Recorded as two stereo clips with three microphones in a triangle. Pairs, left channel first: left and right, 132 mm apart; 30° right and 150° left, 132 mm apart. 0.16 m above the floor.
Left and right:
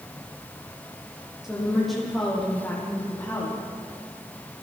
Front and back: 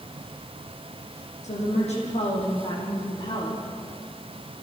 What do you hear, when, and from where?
1.4 s a woman speaking: 5° right, 8 m; by 3.6 s 15° left, 9 m